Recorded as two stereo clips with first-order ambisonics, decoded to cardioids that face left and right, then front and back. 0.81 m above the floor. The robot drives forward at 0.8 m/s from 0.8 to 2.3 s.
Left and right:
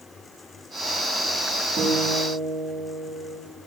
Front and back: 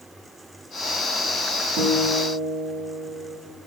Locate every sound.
1.8 s a guitar: 145° right, 2.0 m; by 3.4 s 150° right, 2.5 m